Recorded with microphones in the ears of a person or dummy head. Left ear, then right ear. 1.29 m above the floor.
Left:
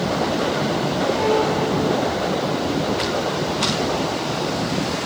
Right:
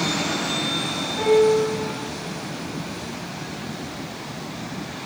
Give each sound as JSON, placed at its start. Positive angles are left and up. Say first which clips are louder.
{"t": 1.2, "sound": "a piano", "louder": "right 5 dB", "side_deg": -20, "distance_m": 1.1}